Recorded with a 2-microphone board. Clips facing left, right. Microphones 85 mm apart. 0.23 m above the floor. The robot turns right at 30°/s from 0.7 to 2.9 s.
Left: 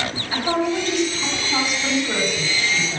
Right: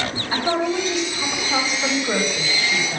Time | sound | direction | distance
0.3 | a woman speaking | 130° right | 3 m